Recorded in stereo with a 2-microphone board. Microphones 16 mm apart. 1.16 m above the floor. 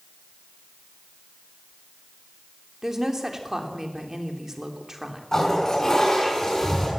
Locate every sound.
2.8 s a woman speaking: 35° right (ahead or behind), 3 m
5.3 s a toilet flushing: 25° left (ahead or behind), 8 m